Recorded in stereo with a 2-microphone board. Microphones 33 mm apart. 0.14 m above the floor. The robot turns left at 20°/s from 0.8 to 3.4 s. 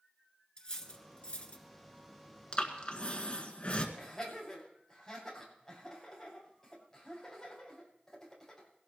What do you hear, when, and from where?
0.6 s cutlery clinking: 25° left (ahead or behind), 1.3 m; by 1.6 s 35° left (ahead or behind), 1.3 m
2.5 s breathing: 30° left (ahead or behind), 1.7 m; by 3.9 s 35° left (ahead or behind), 1.7 m
4.0 s laughter: 10° left (ahead or behind), 6.5 m